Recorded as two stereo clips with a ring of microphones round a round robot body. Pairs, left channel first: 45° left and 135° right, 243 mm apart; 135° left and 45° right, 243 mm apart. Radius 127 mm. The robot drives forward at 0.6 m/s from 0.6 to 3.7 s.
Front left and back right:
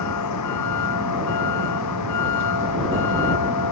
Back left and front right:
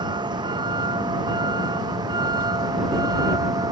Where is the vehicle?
30° left.